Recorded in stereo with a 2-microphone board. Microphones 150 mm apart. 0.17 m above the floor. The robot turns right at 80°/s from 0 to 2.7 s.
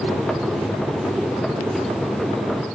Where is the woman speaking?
I don't hear a woman speaking.